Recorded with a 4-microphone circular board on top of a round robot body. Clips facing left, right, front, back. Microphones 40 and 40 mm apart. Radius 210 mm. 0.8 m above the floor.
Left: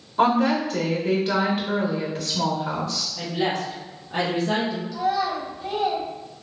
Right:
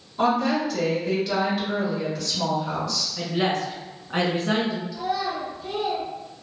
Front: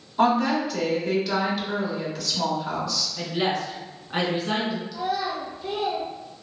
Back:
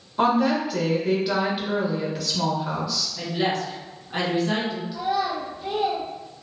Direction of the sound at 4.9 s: 115° left.